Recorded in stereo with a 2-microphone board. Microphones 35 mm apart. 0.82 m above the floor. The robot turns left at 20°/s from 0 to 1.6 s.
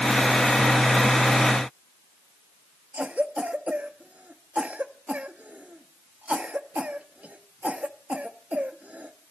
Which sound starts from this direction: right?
A cough, at 2.9 s.